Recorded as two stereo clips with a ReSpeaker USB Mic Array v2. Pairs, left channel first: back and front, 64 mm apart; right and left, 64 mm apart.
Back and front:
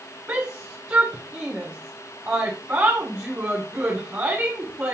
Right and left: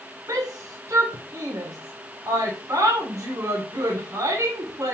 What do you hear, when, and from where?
0.3 s a shout: 55° left, 2.5 m